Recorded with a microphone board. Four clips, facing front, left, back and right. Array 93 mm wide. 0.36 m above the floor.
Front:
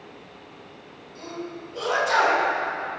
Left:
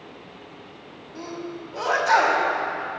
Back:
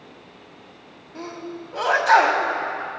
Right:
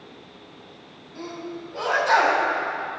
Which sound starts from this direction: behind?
A sneeze, at 1.1 s.